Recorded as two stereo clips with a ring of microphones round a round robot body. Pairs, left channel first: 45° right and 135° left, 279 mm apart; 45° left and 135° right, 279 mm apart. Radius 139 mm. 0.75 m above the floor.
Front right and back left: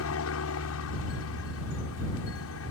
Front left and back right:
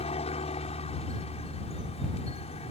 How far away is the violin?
I don't hear a violin.